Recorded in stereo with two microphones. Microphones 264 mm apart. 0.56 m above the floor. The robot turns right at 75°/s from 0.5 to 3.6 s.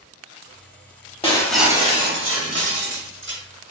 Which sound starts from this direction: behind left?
Breaking glass, at 1.2 s.